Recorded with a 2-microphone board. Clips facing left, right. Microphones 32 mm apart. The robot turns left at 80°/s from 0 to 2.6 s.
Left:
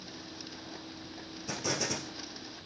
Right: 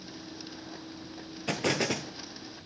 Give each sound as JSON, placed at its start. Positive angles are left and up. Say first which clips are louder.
{"t": 1.5, "sound": "an explosion", "louder": "right 6 dB", "azimuth_deg": -100, "distance_m": 1.5}